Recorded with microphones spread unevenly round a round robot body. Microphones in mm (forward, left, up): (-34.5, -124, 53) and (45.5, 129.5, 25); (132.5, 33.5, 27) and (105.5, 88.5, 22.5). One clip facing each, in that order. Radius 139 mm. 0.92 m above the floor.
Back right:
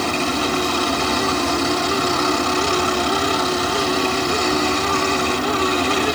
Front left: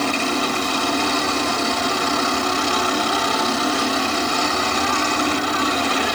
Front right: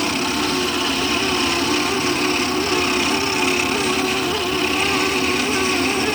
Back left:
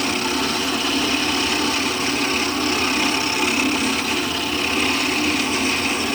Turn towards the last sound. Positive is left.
No sound to turn to.